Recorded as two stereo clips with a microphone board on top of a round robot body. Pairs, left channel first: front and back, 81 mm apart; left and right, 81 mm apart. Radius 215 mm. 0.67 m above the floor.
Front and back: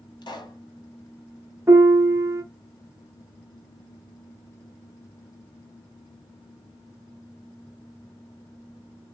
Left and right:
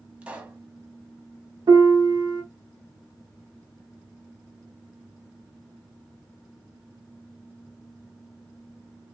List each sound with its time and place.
0.2 s a pop: 15° right, 1.3 m
1.7 s a piano: 125° right, 0.7 m